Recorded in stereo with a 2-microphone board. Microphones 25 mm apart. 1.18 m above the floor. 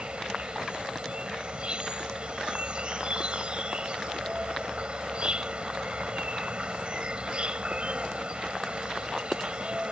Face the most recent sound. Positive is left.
turn(degrees=-40)  # may be behind; listen again after turning